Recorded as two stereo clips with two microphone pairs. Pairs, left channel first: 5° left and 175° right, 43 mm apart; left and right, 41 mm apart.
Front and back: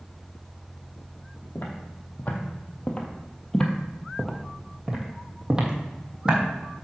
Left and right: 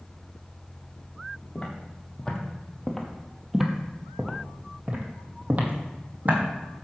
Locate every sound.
1.6 s footsteps: 35° left, 1.8 m; by 6.4 s 120° right, 2 m